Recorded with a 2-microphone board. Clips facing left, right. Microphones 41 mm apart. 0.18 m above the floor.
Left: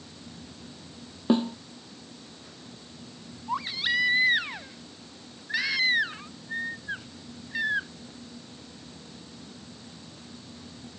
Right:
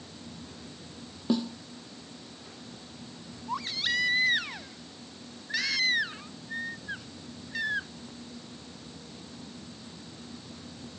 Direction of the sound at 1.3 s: 35° left (ahead or behind).